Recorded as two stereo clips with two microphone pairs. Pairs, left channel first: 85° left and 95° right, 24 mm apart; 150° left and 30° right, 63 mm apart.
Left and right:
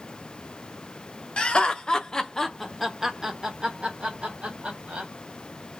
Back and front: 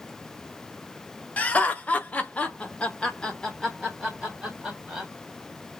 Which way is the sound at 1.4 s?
95° left.